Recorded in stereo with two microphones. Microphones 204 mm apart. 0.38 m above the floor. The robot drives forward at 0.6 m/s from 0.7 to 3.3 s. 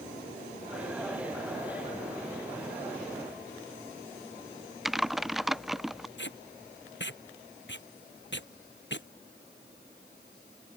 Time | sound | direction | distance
4.8 | typing on a keyboard | centre (ahead or behind) | ?
6.2 | tape being pulled | 60° left (ahead or behind) | ?